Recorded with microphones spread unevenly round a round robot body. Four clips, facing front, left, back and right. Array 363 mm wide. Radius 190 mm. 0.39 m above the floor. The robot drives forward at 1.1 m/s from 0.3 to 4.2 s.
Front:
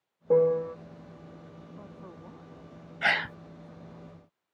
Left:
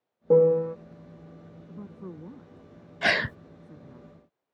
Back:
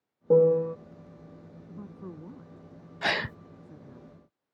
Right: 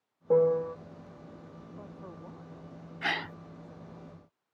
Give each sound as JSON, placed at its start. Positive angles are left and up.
{"t": 0.3, "sound": "a piano", "azimuth_deg": 130}
{"t": 1.7, "sound": "a woman speaking", "azimuth_deg": 125}
{"t": 3.0, "sound": "a gasp", "azimuth_deg": 90}